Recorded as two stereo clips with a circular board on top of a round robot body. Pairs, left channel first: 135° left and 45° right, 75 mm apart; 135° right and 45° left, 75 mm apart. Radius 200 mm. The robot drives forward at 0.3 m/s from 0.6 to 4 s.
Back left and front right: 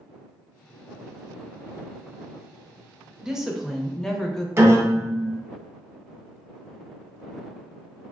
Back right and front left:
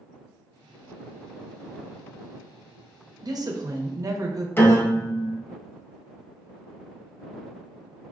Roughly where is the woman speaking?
Ahead left.